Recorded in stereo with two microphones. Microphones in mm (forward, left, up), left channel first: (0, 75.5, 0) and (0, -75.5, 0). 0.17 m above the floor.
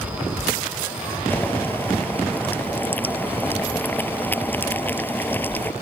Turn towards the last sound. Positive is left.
turn(degrees=10)  # may be behind; listen again after turning